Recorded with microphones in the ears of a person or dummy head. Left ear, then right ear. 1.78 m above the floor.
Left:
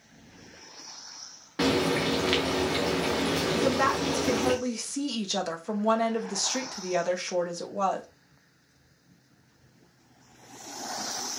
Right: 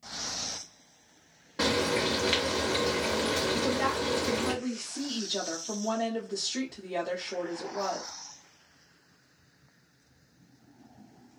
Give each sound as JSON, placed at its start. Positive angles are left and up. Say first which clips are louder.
{"t": 1.6, "sound": "frying", "louder": "left 1 dB", "side_deg": 10, "distance_m": 0.6}
{"t": 3.5, "sound": "a woman speaking", "louder": "left 4 dB", "side_deg": 70, "distance_m": 0.8}